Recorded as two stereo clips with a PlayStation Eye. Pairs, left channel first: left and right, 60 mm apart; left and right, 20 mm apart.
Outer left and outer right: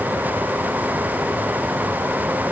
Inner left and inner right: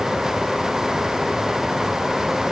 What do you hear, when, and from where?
Only background noise.